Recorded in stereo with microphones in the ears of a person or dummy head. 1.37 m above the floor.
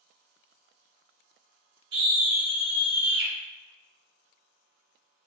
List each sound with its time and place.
1.9 s a scream: 60° right (ahead or behind), 1.5 m